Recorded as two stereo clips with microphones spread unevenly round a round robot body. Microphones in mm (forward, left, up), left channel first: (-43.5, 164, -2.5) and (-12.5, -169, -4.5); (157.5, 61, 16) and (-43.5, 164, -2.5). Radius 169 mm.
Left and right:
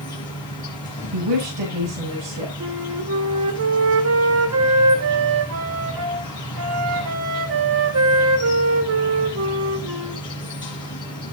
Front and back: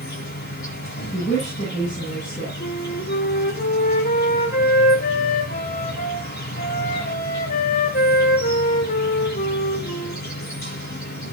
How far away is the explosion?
I don't hear an explosion.